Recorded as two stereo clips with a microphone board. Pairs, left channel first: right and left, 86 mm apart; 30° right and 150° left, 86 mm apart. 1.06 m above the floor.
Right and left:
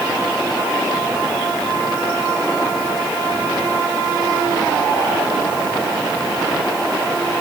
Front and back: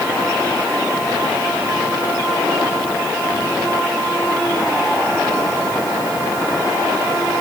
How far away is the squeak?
No squeak in this recording.